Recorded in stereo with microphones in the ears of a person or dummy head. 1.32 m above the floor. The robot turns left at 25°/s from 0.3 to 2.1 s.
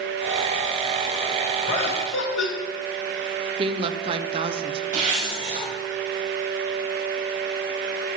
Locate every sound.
1.7 s laughter: 60° left (ahead or behind), 4 m; by 2.5 s 70° left (ahead or behind), 4 m
3.6 s a woman speaking: 30° right (ahead or behind), 0.6 m
4.9 s a zipper: 40° right (ahead or behind), 3.5 m